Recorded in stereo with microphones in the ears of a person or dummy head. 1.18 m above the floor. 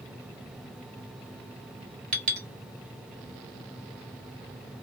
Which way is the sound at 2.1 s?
45° right (ahead or behind).